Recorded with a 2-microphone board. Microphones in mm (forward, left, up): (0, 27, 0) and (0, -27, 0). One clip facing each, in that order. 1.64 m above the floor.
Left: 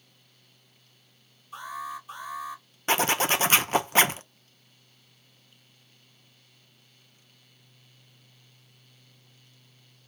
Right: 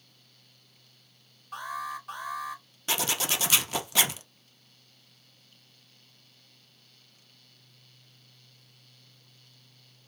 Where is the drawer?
No drawer in this recording.